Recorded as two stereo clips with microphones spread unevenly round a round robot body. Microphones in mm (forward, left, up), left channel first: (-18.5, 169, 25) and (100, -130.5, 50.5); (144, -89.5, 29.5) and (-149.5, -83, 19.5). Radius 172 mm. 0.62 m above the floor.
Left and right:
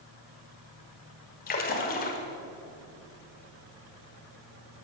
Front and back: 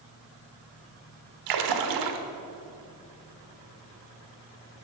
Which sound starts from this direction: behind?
A splash, at 1.5 s.